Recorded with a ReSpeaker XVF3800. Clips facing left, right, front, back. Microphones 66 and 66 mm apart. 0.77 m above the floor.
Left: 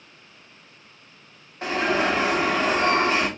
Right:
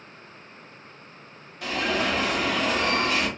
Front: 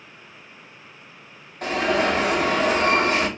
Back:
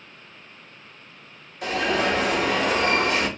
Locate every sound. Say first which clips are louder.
1.6 s an alarm: left 4 dB, front 2 dB; 35° left, 1.9 m